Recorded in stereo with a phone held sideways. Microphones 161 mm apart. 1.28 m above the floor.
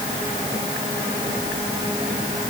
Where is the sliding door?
I don't hear a sliding door.